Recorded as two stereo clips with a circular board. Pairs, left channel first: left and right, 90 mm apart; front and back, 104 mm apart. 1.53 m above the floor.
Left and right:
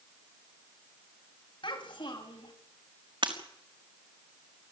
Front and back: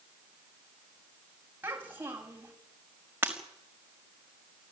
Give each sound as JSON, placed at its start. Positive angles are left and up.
{"t": 1.6, "sound": "a child speaking", "azimuth_deg": 110, "distance_m": 7.0}
{"t": 3.2, "sound": "breaking glass", "azimuth_deg": -110, "distance_m": 5.0}